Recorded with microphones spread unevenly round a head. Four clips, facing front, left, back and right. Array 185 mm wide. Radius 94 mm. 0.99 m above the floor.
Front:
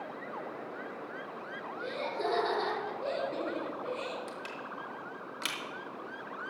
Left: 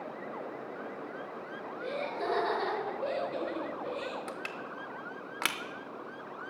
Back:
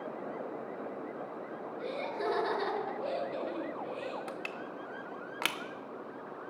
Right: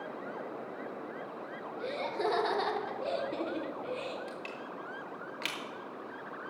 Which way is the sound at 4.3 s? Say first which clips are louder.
Left 2 dB, back 1 dB; 145° left.